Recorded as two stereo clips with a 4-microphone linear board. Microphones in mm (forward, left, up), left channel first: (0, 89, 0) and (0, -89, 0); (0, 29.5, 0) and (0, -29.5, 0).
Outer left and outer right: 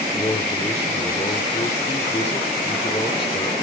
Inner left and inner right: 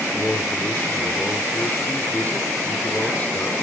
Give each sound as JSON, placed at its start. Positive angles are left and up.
{"t": 0.1, "sound": "a man speaking", "side_deg": 35, "distance_m": 1.3}